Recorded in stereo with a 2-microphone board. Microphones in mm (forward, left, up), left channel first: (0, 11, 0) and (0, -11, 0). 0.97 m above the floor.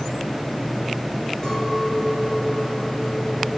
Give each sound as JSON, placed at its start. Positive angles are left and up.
{"t": 1.4, "sound": "a clink", "side_deg": 30, "distance_m": 7.5}